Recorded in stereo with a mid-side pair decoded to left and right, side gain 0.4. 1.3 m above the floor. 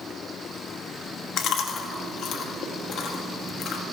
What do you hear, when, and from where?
1.4 s chewing: 70° left, 2.0 m